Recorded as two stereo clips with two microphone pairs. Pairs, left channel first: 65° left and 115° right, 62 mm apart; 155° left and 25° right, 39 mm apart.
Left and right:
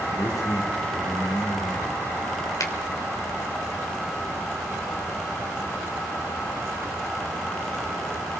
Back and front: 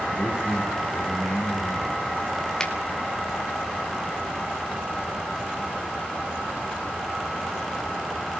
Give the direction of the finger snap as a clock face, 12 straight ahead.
9 o'clock.